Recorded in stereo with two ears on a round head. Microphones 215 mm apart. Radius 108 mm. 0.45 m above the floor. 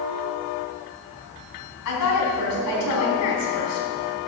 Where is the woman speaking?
75° left (ahead or behind), 3.5 m.